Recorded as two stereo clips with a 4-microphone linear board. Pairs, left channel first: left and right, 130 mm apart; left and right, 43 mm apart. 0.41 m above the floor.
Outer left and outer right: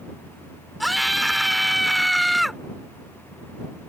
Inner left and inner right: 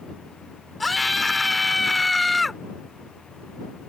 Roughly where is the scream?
Centre.